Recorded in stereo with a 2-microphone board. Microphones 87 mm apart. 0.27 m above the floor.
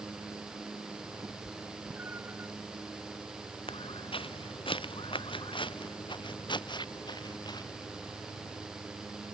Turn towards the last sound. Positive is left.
turn(degrees=40)  # may be behind; listen again after turning